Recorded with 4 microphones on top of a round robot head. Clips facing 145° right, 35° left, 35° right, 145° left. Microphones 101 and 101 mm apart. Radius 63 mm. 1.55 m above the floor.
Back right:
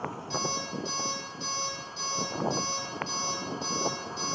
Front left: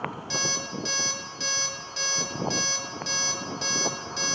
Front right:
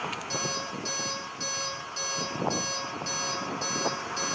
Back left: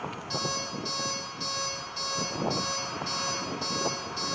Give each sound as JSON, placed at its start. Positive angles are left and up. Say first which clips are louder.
{"t": 0.3, "sound": "an alarm clock", "louder": "even, even", "azimuth_deg": 20, "distance_m": 2.0}